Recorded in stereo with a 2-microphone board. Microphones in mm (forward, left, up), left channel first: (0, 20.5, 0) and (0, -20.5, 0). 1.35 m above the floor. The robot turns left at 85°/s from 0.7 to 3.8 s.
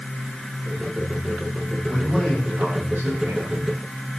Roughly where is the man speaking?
Ahead left.